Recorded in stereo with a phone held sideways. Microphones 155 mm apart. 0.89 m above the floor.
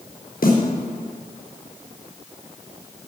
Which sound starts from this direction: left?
A snare drum, at 0.4 s.